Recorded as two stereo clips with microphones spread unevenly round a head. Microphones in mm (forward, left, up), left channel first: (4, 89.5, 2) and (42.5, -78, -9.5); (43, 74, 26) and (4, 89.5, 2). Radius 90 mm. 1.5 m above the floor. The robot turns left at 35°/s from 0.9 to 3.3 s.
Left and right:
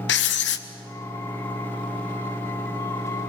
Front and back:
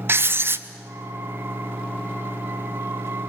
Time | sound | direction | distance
0.1 | writing | 135° left | 1.1 m